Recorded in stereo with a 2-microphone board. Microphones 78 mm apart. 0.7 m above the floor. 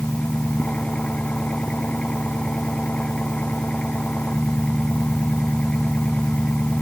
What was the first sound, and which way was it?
An engine running, 15° left (ahead or behind).